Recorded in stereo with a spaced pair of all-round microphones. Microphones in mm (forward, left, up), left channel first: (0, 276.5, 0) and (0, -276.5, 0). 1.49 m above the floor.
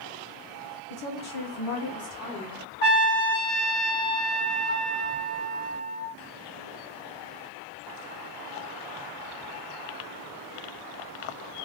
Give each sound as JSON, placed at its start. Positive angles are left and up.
{"t": 0.9, "sound": "a woman speaking", "side_deg": 65, "distance_m": 0.6}
{"t": 2.8, "sound": "a trumpet", "side_deg": 20, "distance_m": 1.0}